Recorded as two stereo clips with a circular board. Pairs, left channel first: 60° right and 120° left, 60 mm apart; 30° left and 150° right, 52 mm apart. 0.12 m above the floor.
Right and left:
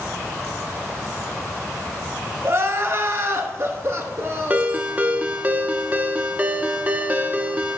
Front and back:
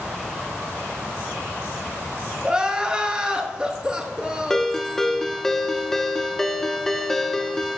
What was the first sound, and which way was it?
Crying, 145° left.